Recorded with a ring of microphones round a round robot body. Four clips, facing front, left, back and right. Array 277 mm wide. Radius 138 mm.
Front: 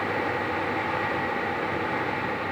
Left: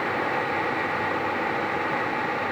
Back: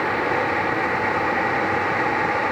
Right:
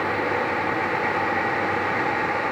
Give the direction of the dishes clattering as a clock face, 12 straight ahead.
I don't hear dishes clattering.